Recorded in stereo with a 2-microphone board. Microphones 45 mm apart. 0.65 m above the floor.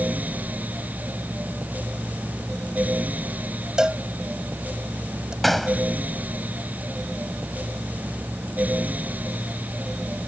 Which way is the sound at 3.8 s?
15° right (ahead or behind).